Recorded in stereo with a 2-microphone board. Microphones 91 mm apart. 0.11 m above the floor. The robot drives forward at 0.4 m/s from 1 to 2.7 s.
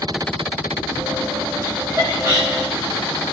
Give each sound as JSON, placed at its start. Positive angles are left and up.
{"t": 1.6, "sound": "laughter", "side_deg": -25, "distance_m": 6.0}